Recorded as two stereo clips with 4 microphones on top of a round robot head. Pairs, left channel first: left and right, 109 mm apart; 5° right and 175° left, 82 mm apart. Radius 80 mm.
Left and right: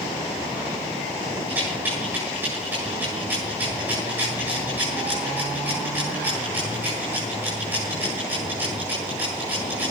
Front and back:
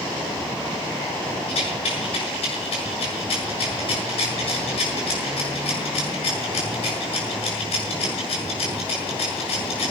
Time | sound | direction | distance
1.5 | a rattle | 15° right | 7.5 m